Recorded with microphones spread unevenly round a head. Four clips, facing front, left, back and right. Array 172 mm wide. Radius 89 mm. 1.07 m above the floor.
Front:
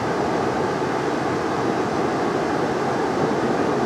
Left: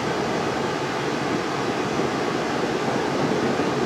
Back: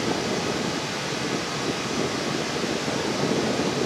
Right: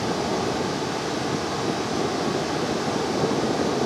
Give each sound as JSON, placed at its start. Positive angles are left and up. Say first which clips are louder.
{"t": 0.0, "sound": "running water", "louder": "left 1 dB, front 5 dB", "azimuth_deg": 10, "distance_m": 1.6}